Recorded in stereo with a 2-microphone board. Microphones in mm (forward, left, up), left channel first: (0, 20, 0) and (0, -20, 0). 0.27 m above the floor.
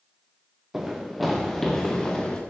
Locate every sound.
0.7 s running footsteps: 5° right (ahead or behind), 2.5 m; by 2.4 s 15° left (ahead or behind), 3 m